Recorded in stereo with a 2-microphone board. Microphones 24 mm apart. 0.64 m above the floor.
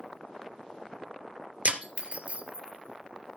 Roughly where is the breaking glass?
Right.